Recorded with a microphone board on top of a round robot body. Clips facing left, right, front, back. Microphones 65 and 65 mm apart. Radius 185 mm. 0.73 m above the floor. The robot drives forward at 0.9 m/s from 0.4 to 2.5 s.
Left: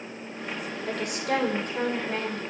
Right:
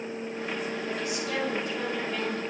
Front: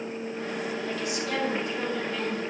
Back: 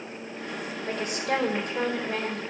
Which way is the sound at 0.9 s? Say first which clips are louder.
Left 3 dB, back 2 dB; 125° left.